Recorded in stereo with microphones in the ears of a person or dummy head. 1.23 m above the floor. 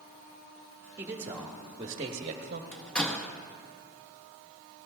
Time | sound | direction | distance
1.0 | a man speaking | 15° right (ahead or behind) | 1.7 m
2.7 | a door slam | 5° left (ahead or behind) | 1.3 m